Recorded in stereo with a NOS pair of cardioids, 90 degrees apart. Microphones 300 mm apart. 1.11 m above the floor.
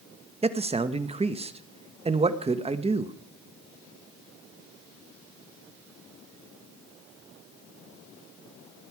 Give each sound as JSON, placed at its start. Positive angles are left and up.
{"t": 0.4, "sound": "a man speaking", "azimuth_deg": -20, "distance_m": 1.2}